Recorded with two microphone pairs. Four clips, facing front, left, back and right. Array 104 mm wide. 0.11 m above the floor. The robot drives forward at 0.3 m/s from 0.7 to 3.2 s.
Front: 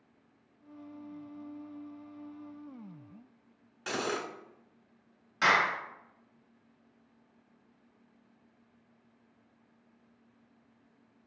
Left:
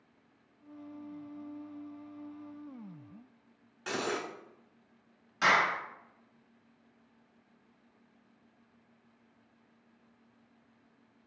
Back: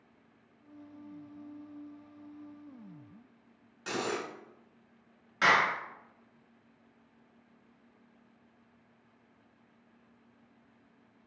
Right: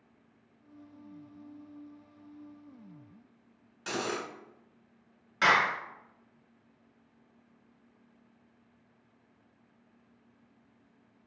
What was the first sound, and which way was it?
Cutlery clinking, straight ahead.